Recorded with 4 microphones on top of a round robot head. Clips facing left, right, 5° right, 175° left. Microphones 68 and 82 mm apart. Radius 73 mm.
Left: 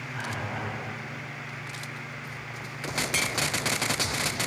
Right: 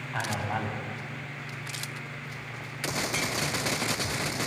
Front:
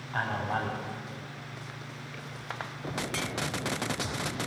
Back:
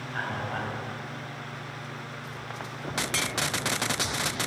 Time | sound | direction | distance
0.1 | a man speaking | 65° right | 2.5 m